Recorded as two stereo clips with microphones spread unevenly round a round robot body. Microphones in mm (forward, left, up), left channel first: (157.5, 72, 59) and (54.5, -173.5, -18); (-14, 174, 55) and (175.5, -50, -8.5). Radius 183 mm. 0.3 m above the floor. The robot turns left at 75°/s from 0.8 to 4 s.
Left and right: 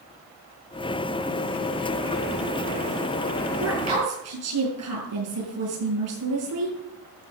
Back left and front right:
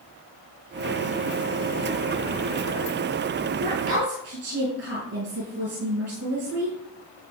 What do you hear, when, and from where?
3.6 s a woman speaking: 75° right, 7 m; by 6.8 s 105° right, 7 m